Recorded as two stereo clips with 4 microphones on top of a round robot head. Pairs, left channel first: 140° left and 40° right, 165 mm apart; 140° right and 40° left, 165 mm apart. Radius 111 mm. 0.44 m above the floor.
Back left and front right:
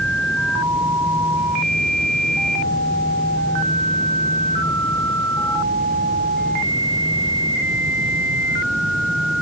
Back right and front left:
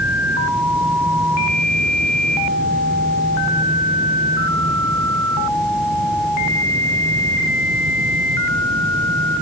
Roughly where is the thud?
I don't hear a thud.